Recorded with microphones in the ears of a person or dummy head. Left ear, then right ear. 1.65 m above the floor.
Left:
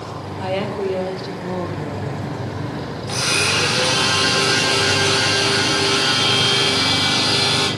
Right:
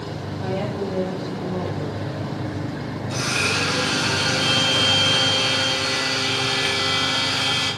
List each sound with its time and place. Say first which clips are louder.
0.4 s a woman speaking: left 4 dB; 60° left (ahead or behind), 2 m; by 2.6 s 15° left (ahead or behind), 2 m
3.1 s a blender: left 4 dB; 75° left (ahead or behind), 5 m